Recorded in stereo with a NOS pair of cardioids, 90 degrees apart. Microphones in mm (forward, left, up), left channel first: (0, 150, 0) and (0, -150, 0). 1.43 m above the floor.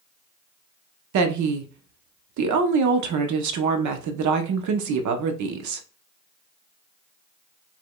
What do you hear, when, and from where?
1.1 s a woman speaking: 65° right, 0.9 m